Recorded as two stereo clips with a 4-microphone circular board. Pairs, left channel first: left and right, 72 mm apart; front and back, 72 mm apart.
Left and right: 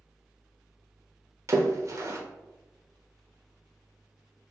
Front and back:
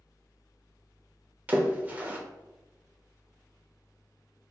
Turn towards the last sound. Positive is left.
turn(degrees=-120)